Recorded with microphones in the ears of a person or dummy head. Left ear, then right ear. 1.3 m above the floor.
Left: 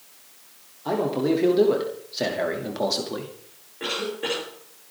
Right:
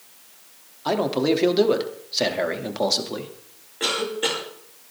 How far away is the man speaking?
About 2.5 m.